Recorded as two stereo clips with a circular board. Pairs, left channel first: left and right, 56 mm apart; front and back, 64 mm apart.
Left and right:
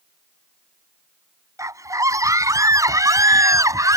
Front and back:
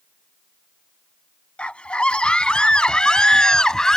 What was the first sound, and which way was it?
A scream, 75° right.